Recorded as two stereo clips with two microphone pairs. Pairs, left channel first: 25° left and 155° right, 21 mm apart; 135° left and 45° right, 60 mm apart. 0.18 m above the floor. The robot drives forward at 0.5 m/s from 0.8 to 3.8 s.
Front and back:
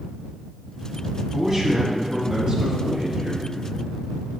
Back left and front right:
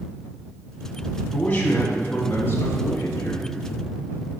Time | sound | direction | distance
1.3 | a man speaking | 150° left | 1.0 m